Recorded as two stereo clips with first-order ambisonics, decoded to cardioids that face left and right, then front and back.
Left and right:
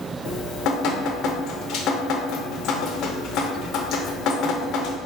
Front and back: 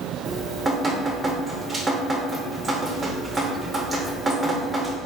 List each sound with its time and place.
0.2 s dripping: 105° left, 0.6 m